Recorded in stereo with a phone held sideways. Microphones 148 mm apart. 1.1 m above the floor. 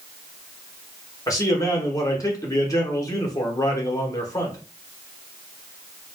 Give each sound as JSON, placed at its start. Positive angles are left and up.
{"t": 1.3, "sound": "a man speaking", "side_deg": 25, "distance_m": 0.9}